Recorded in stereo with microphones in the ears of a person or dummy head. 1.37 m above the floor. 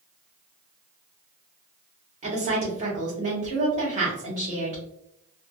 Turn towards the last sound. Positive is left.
turn(degrees=-40)  # may be behind; listen again after turning